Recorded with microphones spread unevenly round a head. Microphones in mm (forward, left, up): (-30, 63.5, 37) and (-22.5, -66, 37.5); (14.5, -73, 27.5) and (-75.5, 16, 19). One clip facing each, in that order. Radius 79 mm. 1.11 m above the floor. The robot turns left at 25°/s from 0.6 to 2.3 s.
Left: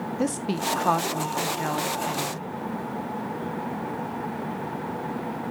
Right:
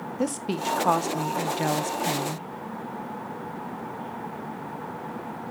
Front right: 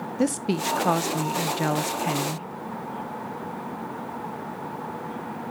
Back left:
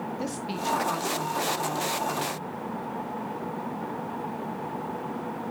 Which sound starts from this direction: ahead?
A woman speaking, at 0.2 s.